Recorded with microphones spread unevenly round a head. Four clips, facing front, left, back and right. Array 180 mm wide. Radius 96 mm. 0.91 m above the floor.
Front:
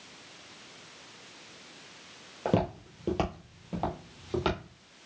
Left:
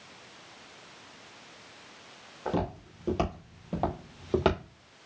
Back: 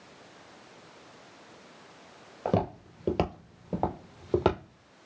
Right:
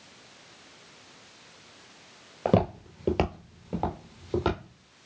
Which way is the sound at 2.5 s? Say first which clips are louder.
Right 7 dB, even; 95° right.